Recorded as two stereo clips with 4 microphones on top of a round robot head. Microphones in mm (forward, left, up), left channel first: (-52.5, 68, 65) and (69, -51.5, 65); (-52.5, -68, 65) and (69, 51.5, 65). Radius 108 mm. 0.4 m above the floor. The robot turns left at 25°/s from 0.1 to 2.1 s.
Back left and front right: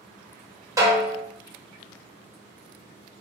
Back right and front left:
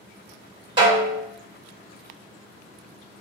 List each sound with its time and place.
0.8 s a snare drum: 10° left, 1.5 m; by 1.2 s straight ahead, 1.5 m